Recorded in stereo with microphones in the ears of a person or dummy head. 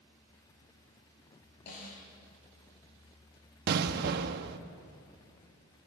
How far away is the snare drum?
About 10 m.